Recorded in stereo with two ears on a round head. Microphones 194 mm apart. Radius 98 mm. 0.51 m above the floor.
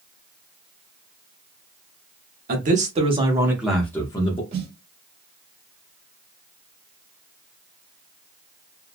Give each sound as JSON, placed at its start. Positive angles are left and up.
{"t": 2.5, "sound": "a man speaking", "side_deg": -40, "distance_m": 1.0}
{"t": 4.5, "sound": "a snare drum", "side_deg": -50, "distance_m": 1.1}